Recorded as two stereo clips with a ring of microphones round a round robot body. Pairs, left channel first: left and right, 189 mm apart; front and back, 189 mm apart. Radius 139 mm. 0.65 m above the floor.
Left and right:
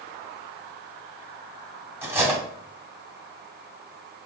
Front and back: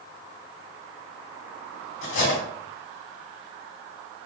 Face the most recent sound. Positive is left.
turn(degrees=-10)